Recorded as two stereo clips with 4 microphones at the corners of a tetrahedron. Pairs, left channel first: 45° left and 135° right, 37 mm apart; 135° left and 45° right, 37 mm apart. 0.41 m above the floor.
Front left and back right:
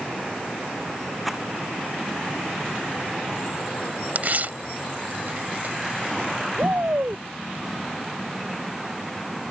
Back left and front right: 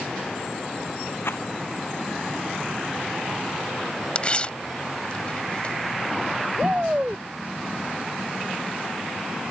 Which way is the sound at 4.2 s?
170° right.